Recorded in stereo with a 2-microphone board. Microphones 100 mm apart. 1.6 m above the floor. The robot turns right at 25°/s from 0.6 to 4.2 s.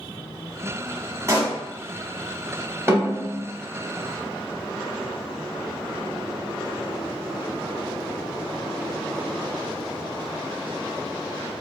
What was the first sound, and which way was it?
A pop, 30° right (ahead or behind).